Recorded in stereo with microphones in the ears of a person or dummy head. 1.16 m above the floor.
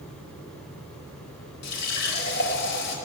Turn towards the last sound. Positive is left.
turn(degrees=65)  # may be behind; listen again after turning